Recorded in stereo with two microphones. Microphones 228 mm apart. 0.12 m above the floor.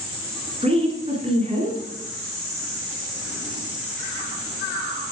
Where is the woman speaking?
25° right (ahead or behind), 1.6 m.